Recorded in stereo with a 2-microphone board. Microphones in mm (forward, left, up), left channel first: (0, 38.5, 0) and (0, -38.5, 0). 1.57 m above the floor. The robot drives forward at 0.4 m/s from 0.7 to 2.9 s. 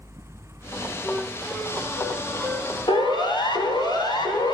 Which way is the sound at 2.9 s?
70° left (ahead or behind).